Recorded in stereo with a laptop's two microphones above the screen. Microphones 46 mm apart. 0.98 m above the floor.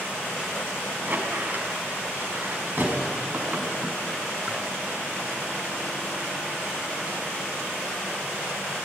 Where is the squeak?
40° right (ahead or behind), 5.5 m.